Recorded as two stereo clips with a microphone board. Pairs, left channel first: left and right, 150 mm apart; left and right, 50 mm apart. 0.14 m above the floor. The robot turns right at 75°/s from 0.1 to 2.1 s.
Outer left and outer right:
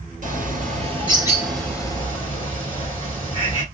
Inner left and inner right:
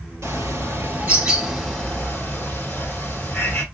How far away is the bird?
About 2.5 m.